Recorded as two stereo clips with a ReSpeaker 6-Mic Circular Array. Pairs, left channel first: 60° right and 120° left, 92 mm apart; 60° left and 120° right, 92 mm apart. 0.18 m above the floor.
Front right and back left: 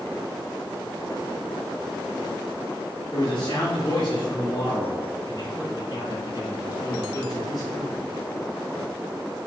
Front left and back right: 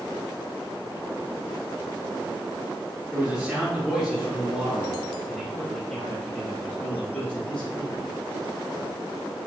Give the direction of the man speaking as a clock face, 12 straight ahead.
1 o'clock.